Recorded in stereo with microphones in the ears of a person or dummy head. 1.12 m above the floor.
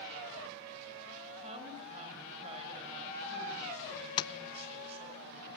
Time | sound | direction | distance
1.4 | a woman speaking | 35° right (ahead or behind) | 6.5 m
4.2 | tapping | 30° left (ahead or behind) | 0.5 m